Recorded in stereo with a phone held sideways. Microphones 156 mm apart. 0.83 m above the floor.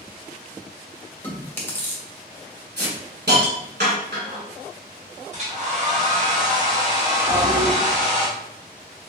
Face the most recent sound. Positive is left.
turn(degrees=-65)  # may be behind; listen again after turning